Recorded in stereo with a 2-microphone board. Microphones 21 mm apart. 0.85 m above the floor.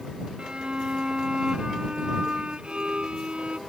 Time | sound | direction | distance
0.4 | a violin | 60° right (ahead or behind) | ?